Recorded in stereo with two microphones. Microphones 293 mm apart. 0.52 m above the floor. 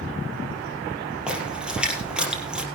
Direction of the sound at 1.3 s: 5° right (ahead or behind).